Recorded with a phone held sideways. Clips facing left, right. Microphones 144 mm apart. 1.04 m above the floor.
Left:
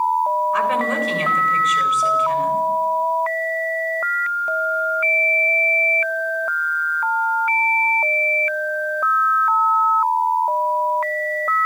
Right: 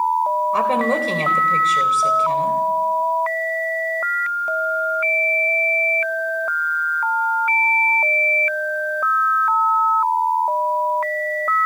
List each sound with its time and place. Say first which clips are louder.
0.5 s a woman speaking: right 2 dB; 30° right (ahead or behind), 4 m